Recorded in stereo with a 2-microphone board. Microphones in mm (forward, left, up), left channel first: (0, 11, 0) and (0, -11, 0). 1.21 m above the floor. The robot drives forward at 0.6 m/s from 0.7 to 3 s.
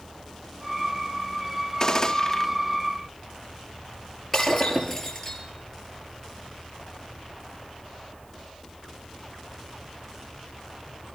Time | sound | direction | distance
1.8 | a gunshot | 35° left (ahead or behind) | 0.7 m
4.3 | breaking glass | 10° left (ahead or behind) | 6 m